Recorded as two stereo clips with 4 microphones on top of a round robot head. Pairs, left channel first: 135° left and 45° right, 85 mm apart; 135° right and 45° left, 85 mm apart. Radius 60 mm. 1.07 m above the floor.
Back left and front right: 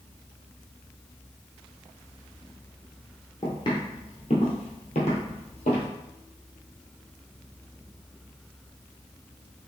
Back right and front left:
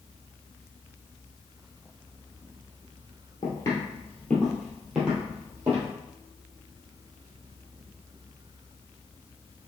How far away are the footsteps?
About 1.5 m.